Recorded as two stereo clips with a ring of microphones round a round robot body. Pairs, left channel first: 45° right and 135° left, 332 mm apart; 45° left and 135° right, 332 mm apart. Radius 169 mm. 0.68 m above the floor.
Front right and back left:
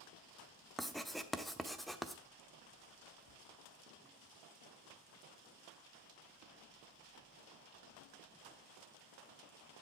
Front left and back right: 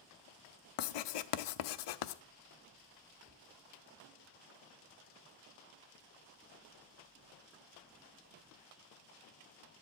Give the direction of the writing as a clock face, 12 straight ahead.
11 o'clock.